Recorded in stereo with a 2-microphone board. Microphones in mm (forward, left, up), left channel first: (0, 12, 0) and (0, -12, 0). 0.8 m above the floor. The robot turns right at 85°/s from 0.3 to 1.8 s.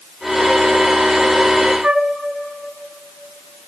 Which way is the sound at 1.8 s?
50° right (ahead or behind).